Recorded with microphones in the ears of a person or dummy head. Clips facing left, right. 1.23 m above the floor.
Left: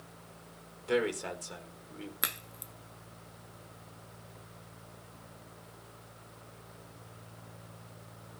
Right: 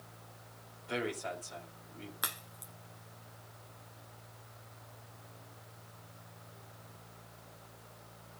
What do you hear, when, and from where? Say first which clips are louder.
0.8 s a man speaking: left 7 dB; 80° left, 4 m
2.2 s a crack: left 3 dB; 30° left (ahead or behind), 0.6 m